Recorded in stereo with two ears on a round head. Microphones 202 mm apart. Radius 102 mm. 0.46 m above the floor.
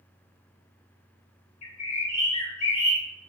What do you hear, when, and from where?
1.6 s a bird: 25° left (ahead or behind), 0.8 m